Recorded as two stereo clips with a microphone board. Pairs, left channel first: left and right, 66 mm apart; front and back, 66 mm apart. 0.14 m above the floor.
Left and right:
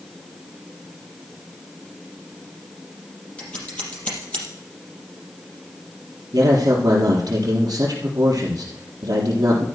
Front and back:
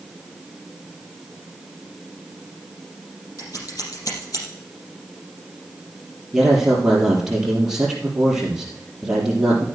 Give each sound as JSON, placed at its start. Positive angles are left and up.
{"t": 3.4, "sound": "scissors", "azimuth_deg": 15, "distance_m": 4.5}
{"t": 6.3, "sound": "a man speaking", "azimuth_deg": -100, "distance_m": 3.0}